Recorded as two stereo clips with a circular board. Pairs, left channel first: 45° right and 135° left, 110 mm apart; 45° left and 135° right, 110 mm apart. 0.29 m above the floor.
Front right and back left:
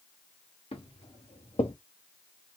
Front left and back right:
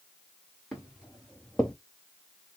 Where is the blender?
I don't hear a blender.